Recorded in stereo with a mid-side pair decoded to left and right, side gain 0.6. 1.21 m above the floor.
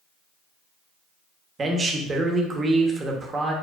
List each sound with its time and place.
1.6 s a man speaking: 30° right, 0.9 m